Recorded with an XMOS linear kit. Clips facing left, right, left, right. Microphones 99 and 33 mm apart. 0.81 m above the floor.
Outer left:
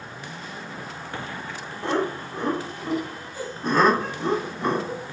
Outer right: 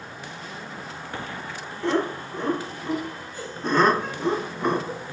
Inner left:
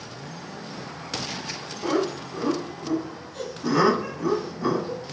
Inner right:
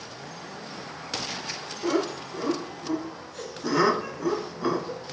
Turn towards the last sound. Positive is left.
turn(degrees=-5)  # may be behind; listen again after turning